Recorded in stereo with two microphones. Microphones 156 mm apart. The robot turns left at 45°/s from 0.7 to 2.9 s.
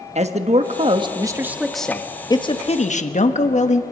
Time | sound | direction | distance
0.1 | a man speaking | 135° right | 1.3 m